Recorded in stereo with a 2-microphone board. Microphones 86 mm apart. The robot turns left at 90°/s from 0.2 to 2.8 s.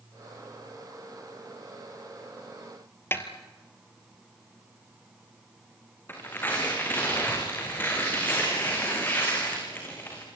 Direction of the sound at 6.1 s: 25° left (ahead or behind).